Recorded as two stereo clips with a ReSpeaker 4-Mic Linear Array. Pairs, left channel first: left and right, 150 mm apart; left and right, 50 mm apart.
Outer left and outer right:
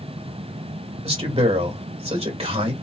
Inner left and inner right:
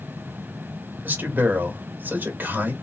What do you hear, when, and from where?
1.0 s a man speaking: 40° right (ahead or behind), 2.5 m